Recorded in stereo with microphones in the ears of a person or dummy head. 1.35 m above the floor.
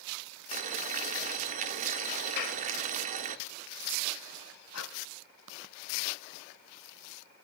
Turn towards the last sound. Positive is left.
turn(degrees=80)